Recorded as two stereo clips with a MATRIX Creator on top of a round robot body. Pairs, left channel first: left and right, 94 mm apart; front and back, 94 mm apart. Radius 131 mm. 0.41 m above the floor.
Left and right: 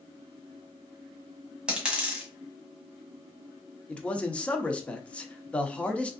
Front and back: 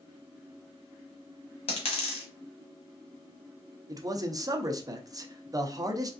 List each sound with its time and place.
1.7 s a dropped coin: 10° right, 1.6 m
3.9 s a man speaking: 160° left, 1.0 m